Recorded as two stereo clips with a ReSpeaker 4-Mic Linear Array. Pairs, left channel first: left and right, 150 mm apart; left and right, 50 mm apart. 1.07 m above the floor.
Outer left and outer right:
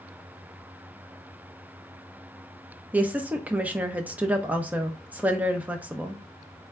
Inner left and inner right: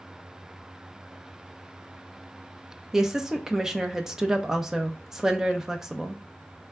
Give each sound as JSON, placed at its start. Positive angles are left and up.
{"t": 2.9, "sound": "a woman speaking", "side_deg": -10, "distance_m": 0.6}